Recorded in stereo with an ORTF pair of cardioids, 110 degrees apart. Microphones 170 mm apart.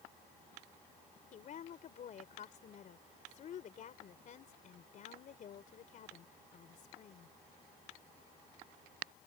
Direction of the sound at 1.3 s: 50° left.